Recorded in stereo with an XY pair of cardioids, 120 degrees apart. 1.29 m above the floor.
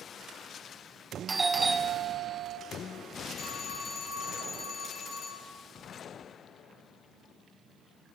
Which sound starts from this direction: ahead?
A doorbell, at 1.3 s.